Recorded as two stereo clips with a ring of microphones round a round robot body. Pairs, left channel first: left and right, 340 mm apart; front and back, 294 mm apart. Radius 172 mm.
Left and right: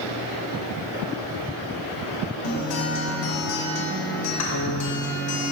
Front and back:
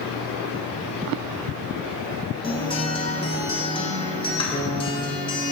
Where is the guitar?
70° left, 3 m.